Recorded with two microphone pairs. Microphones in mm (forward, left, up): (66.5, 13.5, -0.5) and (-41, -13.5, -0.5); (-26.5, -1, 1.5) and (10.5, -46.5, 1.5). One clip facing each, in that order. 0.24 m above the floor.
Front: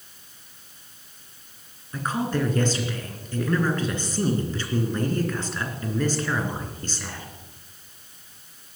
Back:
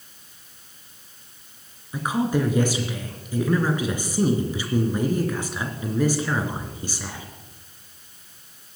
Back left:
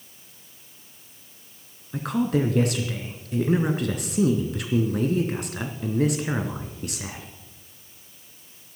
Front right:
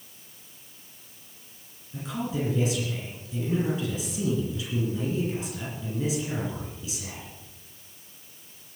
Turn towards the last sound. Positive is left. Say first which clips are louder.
# back 3 dB, back left 7 dB
turn(degrees=115)